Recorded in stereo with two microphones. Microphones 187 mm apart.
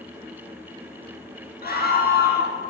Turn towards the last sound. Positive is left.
turn(degrees=55)  # may be behind; listen again after turning